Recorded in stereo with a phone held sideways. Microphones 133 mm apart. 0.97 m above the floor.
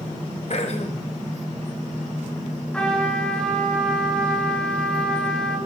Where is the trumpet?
5° left (ahead or behind), 6 m.